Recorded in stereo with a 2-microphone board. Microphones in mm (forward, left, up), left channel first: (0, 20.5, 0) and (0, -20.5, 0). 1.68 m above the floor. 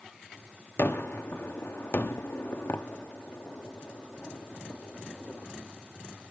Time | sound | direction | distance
0.8 | a gunshot | 60° left (ahead or behind) | 0.6 m